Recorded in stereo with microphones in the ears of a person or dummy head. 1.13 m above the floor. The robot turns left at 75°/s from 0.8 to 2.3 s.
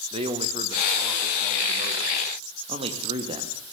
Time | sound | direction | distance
0.1 | a man speaking | 145° right | 2.5 m
2.7 | a man speaking | 35° right (ahead or behind) | 2.0 m